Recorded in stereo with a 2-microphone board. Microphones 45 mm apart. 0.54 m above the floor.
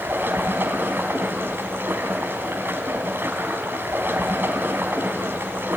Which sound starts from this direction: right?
Running water, at 0.0 s.